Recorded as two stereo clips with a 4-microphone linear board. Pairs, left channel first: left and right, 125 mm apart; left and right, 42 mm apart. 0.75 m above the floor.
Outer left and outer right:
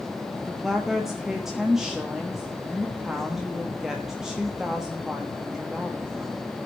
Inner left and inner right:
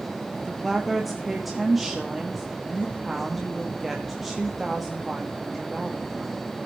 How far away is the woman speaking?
About 1.2 m.